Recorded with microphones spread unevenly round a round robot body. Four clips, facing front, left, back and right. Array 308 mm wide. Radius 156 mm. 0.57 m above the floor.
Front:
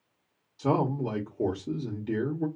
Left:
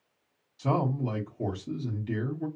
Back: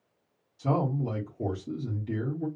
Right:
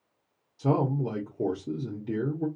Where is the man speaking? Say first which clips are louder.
Right 2 dB, front 2 dB; 40° right, 1.1 m.